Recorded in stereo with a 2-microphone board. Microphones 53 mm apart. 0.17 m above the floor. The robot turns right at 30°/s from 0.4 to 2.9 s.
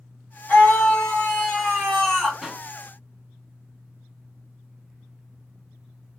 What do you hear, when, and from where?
0.5 s a scream: 25° left (ahead or behind), 1.8 m; by 2.3 s 5° left (ahead or behind), 1.8 m
2.4 s a pop: centre (ahead or behind), 1.7 m; by 2.6 s 5° right (ahead or behind), 1.7 m